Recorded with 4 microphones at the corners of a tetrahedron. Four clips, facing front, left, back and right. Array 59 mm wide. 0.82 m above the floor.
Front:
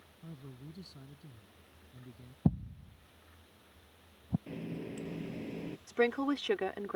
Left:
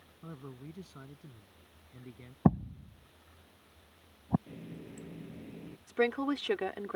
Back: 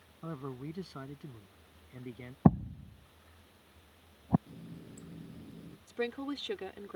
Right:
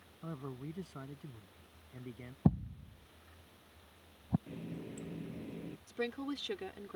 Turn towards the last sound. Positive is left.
turn(degrees=50)